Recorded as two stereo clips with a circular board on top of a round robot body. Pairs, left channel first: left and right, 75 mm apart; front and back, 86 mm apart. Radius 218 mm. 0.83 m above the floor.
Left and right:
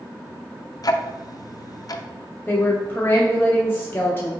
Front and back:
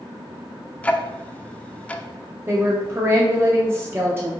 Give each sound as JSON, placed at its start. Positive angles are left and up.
{"t": 0.8, "sound": "ticking", "azimuth_deg": 70, "distance_m": 0.6}
{"t": 2.5, "sound": "a woman speaking", "azimuth_deg": 135, "distance_m": 0.9}